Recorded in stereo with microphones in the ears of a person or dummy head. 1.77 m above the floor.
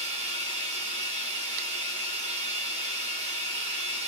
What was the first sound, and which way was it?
Running water, 25° right (ahead or behind).